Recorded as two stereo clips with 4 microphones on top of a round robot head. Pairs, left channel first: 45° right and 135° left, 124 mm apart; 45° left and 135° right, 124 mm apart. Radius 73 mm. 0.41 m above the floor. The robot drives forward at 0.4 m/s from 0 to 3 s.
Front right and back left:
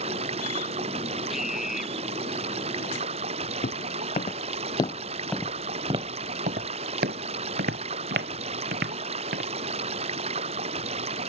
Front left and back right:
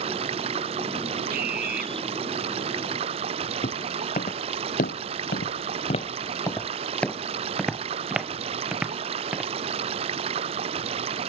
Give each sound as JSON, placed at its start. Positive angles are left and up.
{"t": 0.0, "sound": "running water", "azimuth_deg": 180}
{"t": 1.3, "sound": "a scream", "azimuth_deg": -135}
{"t": 3.6, "sound": "footsteps", "azimuth_deg": -5}